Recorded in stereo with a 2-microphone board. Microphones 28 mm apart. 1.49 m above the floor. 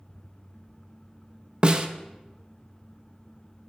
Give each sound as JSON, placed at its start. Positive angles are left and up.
{"t": 1.6, "sound": "a snare drum", "side_deg": -35, "distance_m": 0.6}